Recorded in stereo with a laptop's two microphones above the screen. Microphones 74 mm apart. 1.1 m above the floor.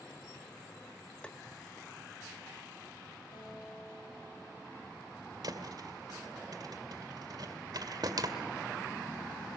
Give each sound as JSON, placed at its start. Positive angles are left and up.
{"t": 1.2, "sound": "tapping", "side_deg": 15, "distance_m": 0.6}
{"t": 3.3, "sound": "a guitar", "side_deg": 60, "distance_m": 5.5}
{"t": 5.4, "sound": "a thud", "side_deg": -55, "distance_m": 2.0}